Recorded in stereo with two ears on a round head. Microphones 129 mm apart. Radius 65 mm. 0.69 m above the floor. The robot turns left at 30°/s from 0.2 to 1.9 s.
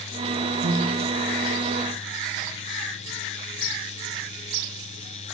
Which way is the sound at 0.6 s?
75° right (ahead or behind).